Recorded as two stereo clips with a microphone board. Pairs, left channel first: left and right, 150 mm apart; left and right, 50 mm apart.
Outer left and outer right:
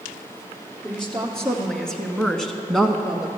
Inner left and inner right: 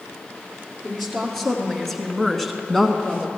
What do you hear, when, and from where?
0.8 s a woman speaking: 5° left (ahead or behind), 2.5 m; by 3.3 s centre (ahead or behind), 1.4 m